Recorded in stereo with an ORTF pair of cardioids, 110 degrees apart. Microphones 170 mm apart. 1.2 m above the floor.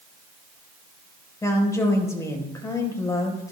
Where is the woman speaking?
20° left, 4 m.